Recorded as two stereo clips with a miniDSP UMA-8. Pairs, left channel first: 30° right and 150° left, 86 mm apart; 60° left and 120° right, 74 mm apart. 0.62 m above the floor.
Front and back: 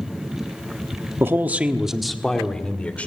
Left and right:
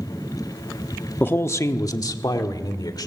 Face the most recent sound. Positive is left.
turn(degrees=45)